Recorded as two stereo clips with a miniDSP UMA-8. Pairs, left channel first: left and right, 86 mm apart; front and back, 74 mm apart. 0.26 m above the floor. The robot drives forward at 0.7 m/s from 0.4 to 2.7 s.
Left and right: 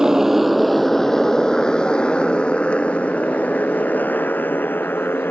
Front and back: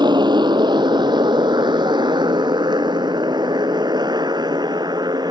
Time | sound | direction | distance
0.0 | a motorcycle | 170° right | ?